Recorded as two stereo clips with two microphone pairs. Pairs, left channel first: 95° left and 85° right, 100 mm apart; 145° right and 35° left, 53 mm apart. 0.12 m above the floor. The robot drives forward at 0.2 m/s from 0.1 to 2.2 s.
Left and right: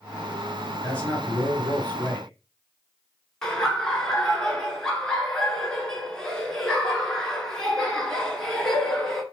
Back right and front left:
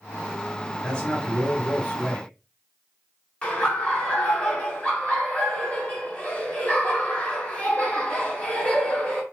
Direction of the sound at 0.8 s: 160° left.